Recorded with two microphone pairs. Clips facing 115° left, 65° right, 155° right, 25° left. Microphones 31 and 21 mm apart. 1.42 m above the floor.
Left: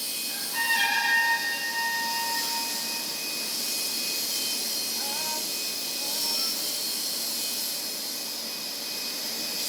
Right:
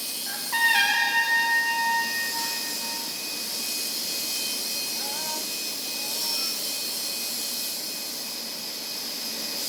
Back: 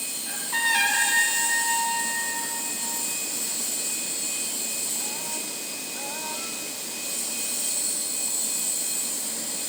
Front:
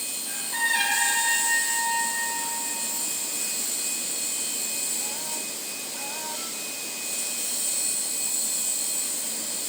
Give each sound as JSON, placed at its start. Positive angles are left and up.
{"t": 0.3, "sound": "a trumpet", "azimuth_deg": -90, "distance_m": 0.8}